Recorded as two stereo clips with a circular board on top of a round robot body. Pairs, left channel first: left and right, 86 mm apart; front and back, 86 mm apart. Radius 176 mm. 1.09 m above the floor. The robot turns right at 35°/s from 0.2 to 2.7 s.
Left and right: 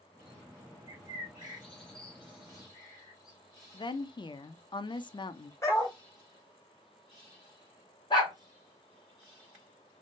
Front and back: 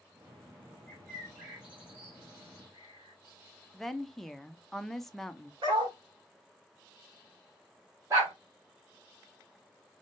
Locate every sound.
0.9 s a bird: 75° left, 0.6 m; by 3.4 s 140° left, 0.6 m
3.7 s a woman speaking: 85° left, 0.6 m
5.6 s a dog barking: 145° left, 1.3 m
8.1 s a dog barking: 125° left, 1.4 m